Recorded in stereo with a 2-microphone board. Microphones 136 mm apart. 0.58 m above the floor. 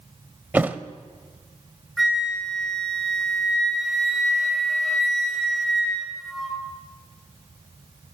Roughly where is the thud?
Centre.